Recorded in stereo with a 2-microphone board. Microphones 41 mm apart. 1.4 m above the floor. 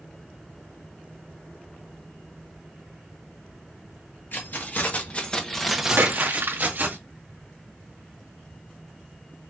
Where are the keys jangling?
55° left (ahead or behind), 1.5 m; by 7.0 s 50° right (ahead or behind), 1.5 m.